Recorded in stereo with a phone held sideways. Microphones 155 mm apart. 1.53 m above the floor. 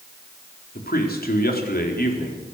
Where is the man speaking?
80° left, 4.5 m.